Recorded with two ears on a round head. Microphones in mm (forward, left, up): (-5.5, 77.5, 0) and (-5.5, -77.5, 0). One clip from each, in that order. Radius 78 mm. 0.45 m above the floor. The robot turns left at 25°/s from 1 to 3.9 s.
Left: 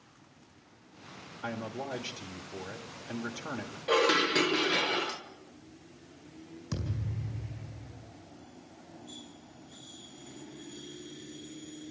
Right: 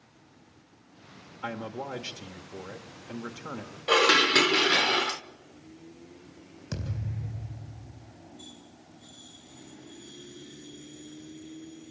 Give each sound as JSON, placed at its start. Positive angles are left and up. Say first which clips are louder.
{"t": 1.4, "sound": "a man speaking", "louder": "right 2 dB", "azimuth_deg": -125, "distance_m": 1.1}
{"t": 3.9, "sound": "dishes clattering", "louder": "right 5 dB", "side_deg": -35, "distance_m": 0.6}
{"t": 6.7, "sound": "a thud", "louder": "right 1 dB", "side_deg": -15, "distance_m": 4.0}